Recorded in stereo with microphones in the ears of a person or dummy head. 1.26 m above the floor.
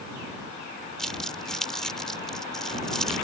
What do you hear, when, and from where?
1.0 s crumpling: 5° left (ahead or behind)